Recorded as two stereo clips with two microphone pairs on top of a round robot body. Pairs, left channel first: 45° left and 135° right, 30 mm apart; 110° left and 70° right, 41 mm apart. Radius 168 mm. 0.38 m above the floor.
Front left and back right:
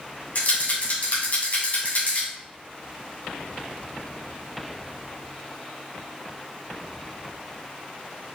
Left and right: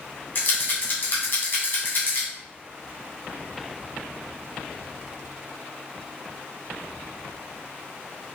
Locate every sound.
0.3 s a rattle: 70° left, 2.5 m